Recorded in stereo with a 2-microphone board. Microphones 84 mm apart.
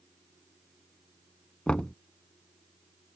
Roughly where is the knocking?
Centre.